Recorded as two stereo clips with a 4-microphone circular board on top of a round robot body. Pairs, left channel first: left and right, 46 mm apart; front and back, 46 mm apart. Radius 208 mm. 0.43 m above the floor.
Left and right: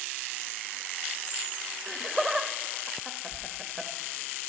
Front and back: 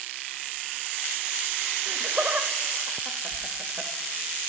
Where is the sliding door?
85° left, 1.5 m.